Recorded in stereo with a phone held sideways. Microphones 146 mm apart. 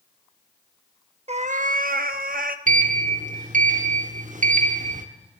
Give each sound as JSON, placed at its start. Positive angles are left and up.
{"t": 1.3, "sound": "a cat meowing", "side_deg": -45, "distance_m": 0.6}
{"t": 2.7, "sound": "a sliding door", "side_deg": -60, "distance_m": 0.9}